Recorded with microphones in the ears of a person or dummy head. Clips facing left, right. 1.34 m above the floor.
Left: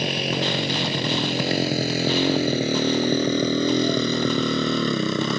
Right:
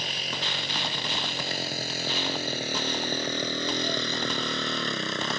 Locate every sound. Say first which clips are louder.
0.0 s a motorcycle: left 12 dB; 60° left (ahead or behind); by 5.4 s 80° left